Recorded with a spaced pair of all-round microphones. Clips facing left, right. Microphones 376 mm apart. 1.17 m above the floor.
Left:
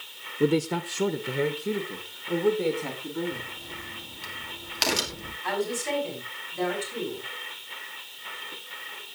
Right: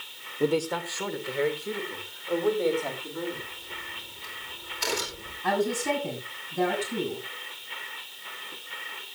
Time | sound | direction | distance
0.4 | a man speaking | 20° left (ahead or behind) | 0.7 m
3.3 | a crack | 85° left | 2.5 m
5.4 | a woman speaking | 55° right (ahead or behind) | 8.5 m